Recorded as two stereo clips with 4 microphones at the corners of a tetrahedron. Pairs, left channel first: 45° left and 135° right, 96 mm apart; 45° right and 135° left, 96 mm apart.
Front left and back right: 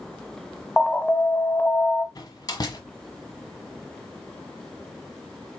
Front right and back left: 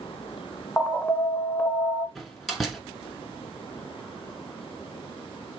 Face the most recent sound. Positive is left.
turn(degrees=45)